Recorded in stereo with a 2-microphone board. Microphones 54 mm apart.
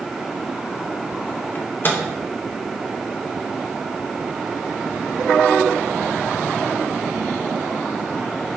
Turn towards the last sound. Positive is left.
turn(degrees=40)  # may be behind; listen again after turning